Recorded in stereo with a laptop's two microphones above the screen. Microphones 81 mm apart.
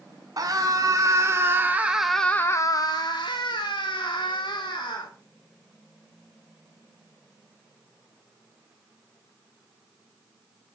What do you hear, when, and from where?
0.4 s a scream: 50° right (ahead or behind), 3 m; by 5.1 s 75° left (ahead or behind), 4 m